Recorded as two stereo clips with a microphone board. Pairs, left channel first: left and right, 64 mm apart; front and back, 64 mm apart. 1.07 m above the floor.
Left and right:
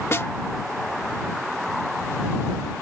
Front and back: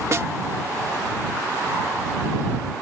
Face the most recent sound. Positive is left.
turn(degrees=135)